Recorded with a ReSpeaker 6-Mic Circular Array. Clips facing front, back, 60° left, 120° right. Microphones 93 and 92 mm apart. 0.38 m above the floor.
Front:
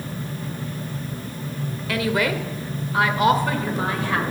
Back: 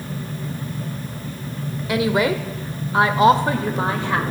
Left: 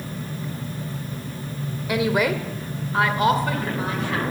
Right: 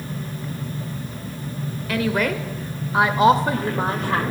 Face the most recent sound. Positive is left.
turn(degrees=-120)